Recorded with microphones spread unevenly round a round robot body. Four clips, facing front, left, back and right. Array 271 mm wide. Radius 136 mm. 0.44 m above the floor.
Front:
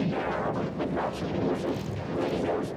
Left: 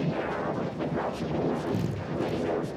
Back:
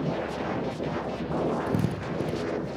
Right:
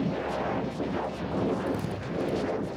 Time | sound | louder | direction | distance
1.7 | a drill | even, back 3 dB | 165° left | 6.5 m